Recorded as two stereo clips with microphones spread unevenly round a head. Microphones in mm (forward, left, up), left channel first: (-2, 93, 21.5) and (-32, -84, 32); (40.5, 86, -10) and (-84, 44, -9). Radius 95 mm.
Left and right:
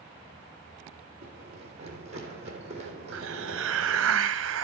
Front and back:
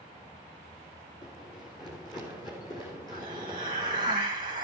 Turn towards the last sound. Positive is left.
turn(degrees=-95)